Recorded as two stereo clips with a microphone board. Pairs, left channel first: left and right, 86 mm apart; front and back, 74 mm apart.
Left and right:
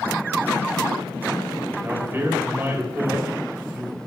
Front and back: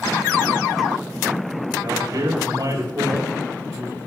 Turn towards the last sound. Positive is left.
turn(degrees=-150)